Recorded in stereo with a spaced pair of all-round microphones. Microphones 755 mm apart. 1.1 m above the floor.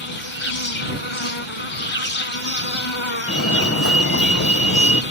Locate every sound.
0.0 s an insect: 40° left (ahead or behind)
3.3 s a fire alarm: 20° left (ahead or behind)